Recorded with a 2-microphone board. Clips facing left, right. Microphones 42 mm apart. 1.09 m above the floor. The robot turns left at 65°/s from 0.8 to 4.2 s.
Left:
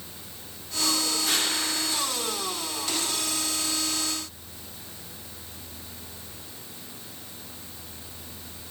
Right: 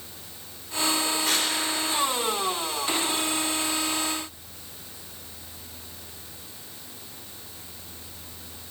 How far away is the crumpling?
About 3.5 m.